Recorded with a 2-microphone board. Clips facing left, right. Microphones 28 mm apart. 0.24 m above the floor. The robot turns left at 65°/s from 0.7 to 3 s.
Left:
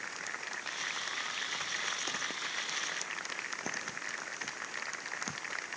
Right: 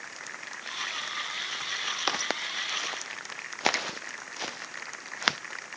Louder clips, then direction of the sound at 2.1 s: Right 7 dB; 50° right (ahead or behind).